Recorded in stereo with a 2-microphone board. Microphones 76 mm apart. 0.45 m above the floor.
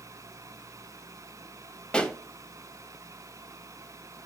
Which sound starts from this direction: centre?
A pop, at 1.9 s.